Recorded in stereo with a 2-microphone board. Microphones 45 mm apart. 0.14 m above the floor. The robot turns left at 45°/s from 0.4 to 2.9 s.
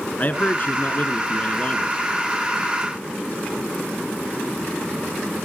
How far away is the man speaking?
About 1.5 m.